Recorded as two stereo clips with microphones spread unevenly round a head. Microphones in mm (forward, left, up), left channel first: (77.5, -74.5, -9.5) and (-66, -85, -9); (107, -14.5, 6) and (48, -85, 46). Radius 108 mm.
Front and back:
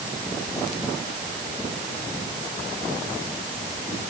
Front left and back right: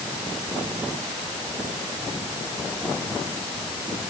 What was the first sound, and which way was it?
Only background noise.